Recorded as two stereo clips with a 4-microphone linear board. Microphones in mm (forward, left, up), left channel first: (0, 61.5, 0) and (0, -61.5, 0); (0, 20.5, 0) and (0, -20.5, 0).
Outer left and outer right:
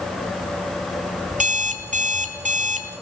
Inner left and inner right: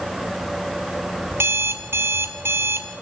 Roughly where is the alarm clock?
Right.